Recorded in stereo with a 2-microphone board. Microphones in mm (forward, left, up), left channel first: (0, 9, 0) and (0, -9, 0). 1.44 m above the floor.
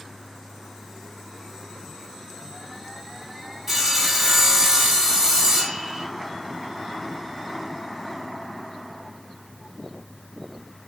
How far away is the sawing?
About 5 m.